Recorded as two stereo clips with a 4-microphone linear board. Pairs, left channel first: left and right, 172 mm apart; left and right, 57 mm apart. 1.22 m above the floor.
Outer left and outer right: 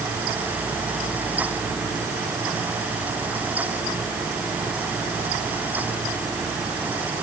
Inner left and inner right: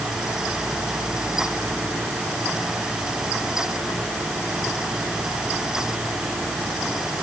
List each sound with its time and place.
Only background noise.